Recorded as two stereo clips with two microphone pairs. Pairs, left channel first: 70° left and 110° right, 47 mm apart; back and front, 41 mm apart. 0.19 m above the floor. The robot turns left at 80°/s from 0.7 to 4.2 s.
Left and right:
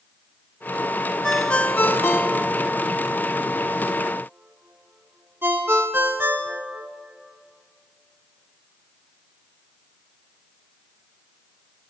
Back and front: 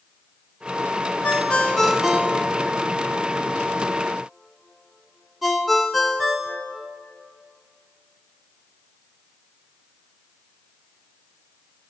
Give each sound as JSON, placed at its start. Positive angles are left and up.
{"t": 1.2, "sound": "a ringtone", "azimuth_deg": 150, "distance_m": 0.7}